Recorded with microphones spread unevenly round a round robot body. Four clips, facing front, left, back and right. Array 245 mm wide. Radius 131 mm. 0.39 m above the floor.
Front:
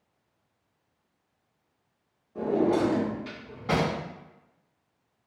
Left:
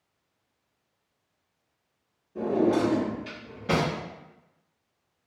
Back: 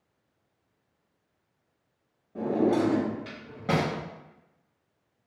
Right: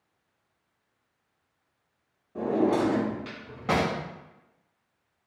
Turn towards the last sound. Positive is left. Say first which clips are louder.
# left 1 dB, even
turn(degrees=-150)